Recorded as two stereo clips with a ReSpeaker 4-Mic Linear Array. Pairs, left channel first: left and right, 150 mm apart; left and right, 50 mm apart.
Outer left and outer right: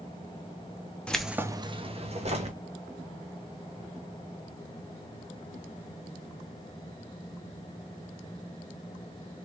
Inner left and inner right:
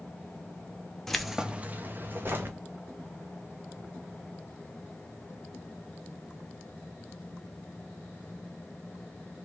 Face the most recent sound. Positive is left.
turn(degrees=-45)  # may be behind; listen again after turning